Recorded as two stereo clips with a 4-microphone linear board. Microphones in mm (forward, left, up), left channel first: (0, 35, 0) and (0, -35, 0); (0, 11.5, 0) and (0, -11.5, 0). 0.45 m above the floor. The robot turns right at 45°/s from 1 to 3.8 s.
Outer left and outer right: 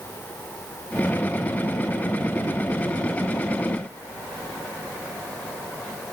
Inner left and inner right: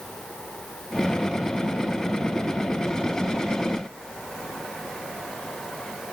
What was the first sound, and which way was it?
Only background noise.